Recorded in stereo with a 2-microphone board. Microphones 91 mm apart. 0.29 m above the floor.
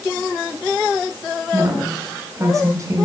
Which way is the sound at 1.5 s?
35° right (ahead or behind).